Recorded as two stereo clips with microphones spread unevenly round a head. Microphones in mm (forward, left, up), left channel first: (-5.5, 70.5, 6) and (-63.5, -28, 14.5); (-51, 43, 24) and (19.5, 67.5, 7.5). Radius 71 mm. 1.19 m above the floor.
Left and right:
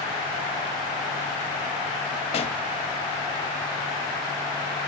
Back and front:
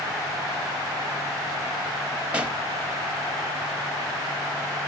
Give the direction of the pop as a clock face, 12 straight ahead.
9 o'clock.